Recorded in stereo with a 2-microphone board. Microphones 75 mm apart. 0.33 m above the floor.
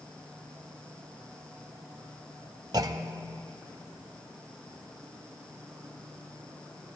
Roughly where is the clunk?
Right.